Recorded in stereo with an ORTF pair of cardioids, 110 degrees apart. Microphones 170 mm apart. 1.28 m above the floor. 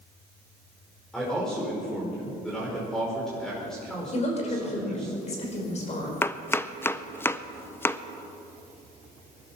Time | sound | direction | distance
1.1 | a man speaking | 5° left | 5 m
4.1 | a woman speaking | 40° left | 5 m
6.2 | chopping | 15° left | 0.6 m